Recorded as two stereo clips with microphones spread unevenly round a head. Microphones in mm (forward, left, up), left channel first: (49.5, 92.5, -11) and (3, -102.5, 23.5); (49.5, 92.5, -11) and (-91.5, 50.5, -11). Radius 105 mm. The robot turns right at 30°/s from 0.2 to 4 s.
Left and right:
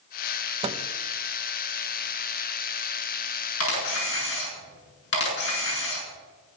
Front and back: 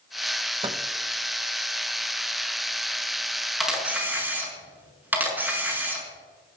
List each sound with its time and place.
0.6 s a microwave: 130° right, 0.9 m; by 0.8 s 125° right, 0.9 m
3.6 s a camera shutter: 105° left, 6.5 m; by 6.0 s 120° left, 6.5 m